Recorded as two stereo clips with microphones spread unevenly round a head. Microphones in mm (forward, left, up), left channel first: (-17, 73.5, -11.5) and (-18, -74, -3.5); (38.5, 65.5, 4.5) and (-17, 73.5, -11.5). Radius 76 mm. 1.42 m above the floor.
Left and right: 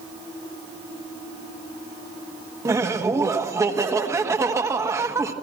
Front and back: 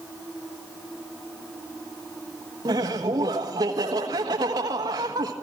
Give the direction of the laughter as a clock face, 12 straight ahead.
5 o'clock.